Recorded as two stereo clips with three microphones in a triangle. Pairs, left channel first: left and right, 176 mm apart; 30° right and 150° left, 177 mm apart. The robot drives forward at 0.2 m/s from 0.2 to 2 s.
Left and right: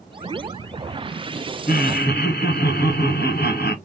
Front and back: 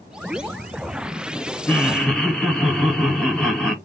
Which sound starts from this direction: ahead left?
Laughter, at 1.7 s.